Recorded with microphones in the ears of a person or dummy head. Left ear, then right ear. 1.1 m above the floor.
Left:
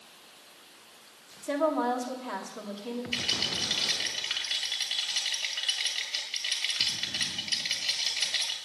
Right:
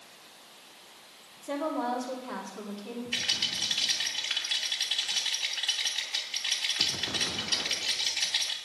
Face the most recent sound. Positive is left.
turn(degrees=10)  # may be behind; listen again after turning